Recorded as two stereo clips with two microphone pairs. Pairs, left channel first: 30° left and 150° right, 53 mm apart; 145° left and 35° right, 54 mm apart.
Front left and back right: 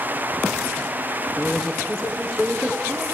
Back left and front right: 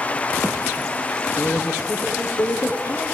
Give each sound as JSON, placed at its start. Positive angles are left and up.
{"t": 1.4, "sound": "a man speaking", "azimuth_deg": 125, "distance_m": 7.5}